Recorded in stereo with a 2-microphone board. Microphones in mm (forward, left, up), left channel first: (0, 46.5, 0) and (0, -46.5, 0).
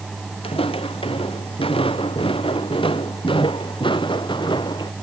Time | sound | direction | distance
0.4 | footsteps | 85° left | ?